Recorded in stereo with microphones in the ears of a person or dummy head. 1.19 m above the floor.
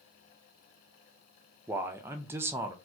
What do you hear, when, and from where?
1.7 s a man speaking: 15° right (ahead or behind), 0.5 m